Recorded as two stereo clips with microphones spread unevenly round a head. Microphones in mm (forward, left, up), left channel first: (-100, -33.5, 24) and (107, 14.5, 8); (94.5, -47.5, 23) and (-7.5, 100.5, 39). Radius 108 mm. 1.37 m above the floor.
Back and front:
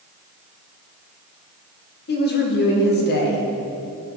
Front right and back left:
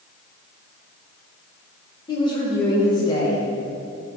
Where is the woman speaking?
125° right, 1.4 m.